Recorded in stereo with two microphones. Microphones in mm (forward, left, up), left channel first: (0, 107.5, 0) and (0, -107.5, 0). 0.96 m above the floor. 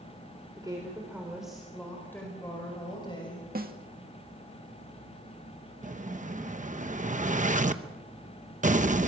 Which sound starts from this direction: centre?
A woman speaking, at 0.6 s.